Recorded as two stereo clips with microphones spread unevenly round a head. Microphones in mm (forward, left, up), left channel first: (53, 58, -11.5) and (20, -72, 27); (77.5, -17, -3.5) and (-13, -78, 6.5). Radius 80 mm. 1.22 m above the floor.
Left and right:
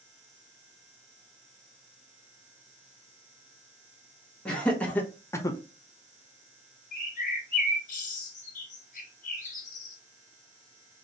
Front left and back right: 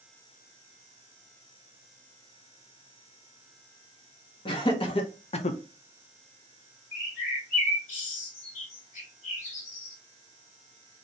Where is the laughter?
5° right, 2.0 m; by 5.6 s 20° left, 0.5 m.